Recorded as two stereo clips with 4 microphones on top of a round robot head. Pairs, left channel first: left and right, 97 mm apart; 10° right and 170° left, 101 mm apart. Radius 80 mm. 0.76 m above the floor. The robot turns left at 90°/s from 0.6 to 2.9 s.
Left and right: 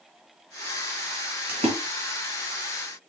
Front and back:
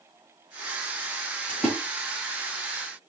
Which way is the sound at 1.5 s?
80° right.